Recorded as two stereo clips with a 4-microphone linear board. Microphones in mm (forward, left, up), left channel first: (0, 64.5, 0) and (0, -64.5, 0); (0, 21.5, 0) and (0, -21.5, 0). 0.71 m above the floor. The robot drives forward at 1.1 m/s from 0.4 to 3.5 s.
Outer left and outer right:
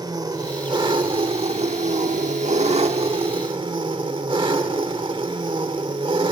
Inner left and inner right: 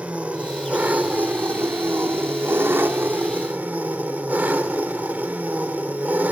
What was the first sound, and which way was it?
An engine running, 30° right (ahead or behind).